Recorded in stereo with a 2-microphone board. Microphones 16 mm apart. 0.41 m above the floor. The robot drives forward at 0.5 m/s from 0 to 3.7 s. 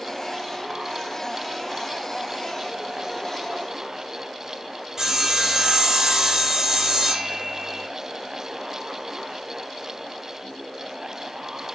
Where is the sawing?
30° right (ahead or behind), 4 m.